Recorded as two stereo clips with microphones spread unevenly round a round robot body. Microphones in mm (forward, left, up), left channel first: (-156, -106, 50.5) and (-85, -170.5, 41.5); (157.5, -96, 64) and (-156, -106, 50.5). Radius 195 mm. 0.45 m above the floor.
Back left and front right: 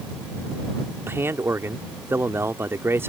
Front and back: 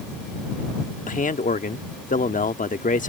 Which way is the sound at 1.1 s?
40° right.